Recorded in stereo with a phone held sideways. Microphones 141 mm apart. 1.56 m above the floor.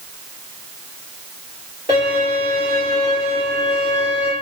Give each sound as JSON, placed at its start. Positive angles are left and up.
{"t": 1.9, "sound": "a violin", "side_deg": -40, "distance_m": 1.9}